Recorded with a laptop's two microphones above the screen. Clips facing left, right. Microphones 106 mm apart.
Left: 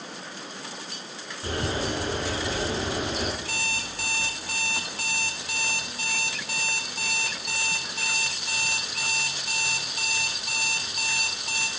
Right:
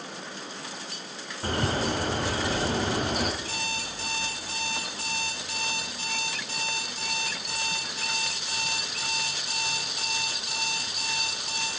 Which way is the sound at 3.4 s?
65° left (ahead or behind).